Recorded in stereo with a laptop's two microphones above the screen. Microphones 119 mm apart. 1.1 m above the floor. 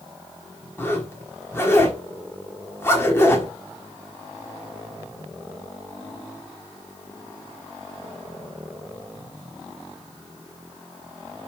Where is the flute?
I don't hear a flute.